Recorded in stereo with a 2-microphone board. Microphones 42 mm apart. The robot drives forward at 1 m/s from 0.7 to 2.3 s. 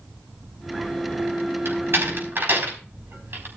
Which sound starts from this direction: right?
A door slam, at 1.6 s.